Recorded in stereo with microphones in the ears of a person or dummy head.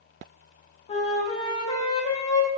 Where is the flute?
30° left (ahead or behind), 0.7 m.